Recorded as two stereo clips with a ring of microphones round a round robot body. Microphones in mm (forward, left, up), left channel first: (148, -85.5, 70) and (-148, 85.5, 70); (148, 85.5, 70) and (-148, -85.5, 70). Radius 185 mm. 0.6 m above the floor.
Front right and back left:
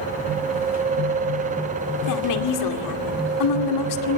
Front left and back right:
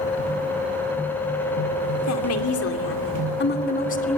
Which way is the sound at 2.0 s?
5° right.